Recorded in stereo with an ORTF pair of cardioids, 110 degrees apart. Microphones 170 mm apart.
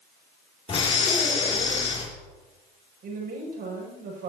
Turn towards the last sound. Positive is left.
turn(degrees=-60)